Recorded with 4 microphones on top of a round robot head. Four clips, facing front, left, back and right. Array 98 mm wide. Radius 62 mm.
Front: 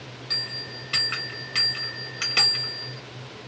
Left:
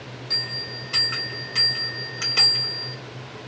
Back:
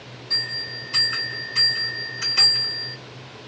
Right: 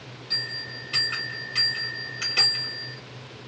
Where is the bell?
25° left, 1.1 m.